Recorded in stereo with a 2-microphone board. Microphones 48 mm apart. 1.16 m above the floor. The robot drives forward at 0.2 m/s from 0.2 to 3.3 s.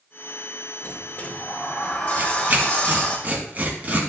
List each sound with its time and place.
0.8 s a sliding door: 35° left (ahead or behind), 1.1 m; by 3.2 s 25° left (ahead or behind), 1.5 m
2.2 s tearing paper: 40° right (ahead or behind), 2 m; by 4.1 s 35° right (ahead or behind), 2.5 m